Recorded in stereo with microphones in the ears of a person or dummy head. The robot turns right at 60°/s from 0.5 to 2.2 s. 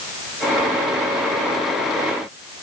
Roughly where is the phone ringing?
No phone ringing in this recording.